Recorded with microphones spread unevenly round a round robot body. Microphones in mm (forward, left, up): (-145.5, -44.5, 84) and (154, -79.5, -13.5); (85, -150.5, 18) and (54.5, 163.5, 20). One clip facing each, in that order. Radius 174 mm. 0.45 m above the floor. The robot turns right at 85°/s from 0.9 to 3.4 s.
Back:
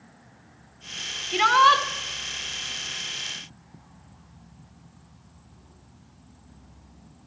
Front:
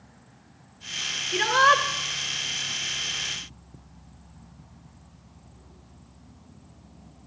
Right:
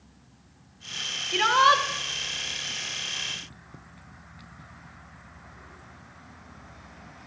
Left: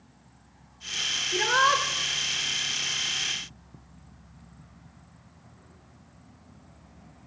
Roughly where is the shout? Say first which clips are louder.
Even, right 1 dB; behind right.